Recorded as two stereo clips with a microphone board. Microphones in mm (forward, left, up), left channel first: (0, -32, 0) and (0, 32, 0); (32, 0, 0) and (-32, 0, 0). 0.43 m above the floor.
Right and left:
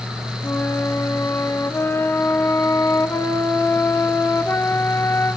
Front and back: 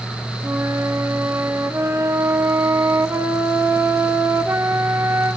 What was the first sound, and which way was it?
A flute, 135° right.